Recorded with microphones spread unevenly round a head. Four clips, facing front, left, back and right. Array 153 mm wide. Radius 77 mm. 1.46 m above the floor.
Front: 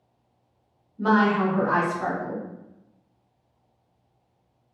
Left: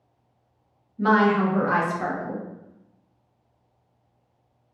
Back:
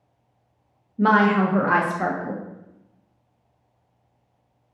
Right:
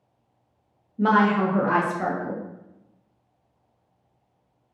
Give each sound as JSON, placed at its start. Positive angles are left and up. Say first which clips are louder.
{"t": 1.0, "sound": "a woman speaking", "louder": "even, back 3 dB", "azimuth_deg": -145, "distance_m": 0.7}